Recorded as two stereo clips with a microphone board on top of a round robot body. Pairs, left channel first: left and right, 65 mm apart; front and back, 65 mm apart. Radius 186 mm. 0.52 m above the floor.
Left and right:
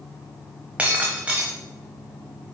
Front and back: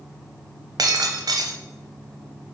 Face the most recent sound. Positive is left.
turn(degrees=-165)